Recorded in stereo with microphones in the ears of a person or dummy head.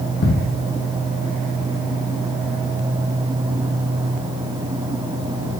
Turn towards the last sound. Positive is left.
turn(degrees=45)  # may be behind; listen again after turning